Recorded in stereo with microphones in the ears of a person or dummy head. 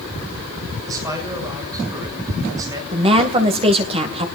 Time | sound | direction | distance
0.9 | a man speaking | 15° right (ahead or behind) | 8 m
2.9 | a woman speaking | 30° right (ahead or behind) | 2 m